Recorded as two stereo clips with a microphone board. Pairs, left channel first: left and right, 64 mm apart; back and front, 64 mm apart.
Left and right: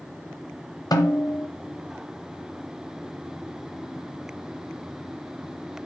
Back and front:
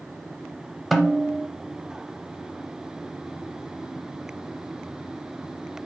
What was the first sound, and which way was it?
A snare drum, 95° left.